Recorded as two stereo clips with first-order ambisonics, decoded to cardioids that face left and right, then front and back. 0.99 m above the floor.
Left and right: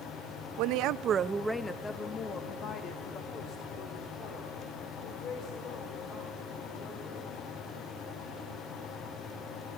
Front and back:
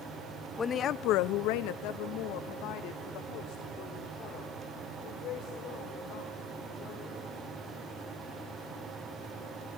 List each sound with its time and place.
0.6 s a woman speaking: 75° right, 0.6 m; by 7.2 s 45° left, 5 m